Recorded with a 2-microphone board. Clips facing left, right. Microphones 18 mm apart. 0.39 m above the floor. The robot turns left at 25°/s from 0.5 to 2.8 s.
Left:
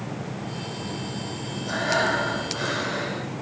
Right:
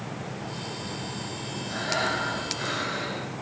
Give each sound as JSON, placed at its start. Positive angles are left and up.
{"t": 1.7, "sound": "breathing", "side_deg": 60, "distance_m": 10.0}